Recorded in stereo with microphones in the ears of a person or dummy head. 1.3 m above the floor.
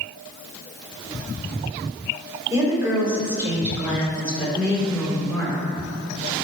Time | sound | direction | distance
2.5 | a woman speaking | 20° right (ahead or behind) | 4.5 m